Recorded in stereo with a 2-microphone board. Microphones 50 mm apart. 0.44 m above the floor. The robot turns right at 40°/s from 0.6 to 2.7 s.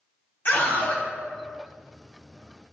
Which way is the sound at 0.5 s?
50° left (ahead or behind).